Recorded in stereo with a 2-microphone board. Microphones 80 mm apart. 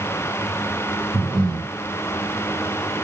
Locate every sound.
1.1 s breathing: 55° right (ahead or behind), 6 m